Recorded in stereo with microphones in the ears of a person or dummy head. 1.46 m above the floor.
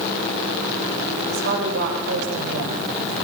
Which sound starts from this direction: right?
A woman speaking, at 1.3 s.